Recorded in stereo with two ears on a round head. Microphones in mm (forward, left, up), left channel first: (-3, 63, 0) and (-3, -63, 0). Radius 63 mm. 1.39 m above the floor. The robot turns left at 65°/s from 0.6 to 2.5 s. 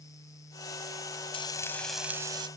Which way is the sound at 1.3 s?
40° left.